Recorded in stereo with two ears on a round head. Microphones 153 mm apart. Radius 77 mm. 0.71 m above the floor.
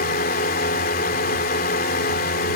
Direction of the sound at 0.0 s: 55° left (ahead or behind).